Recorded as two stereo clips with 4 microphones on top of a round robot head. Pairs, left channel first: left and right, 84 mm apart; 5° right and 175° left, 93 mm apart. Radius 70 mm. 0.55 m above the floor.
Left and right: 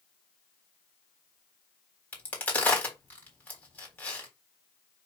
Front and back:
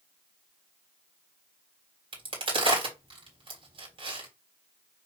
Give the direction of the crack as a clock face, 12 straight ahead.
7 o'clock.